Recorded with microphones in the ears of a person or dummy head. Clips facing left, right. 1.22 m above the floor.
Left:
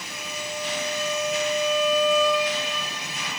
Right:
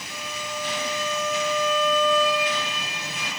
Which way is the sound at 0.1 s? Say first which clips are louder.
Even; 20° left (ahead or behind).